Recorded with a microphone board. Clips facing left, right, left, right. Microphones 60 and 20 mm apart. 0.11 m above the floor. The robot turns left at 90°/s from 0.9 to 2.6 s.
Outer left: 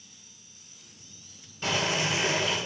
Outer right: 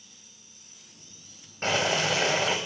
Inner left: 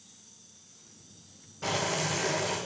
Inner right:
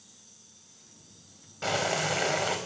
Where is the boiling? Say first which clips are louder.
Outer right 2 dB, inner right 2 dB; 45° right, 4.5 m; by 2.6 s 130° right, 4.5 m.